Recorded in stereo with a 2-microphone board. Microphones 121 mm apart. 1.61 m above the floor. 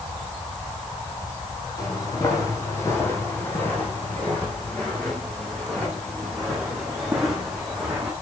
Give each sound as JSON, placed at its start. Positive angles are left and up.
{"t": 1.8, "sound": "footsteps", "side_deg": 30, "distance_m": 3.5}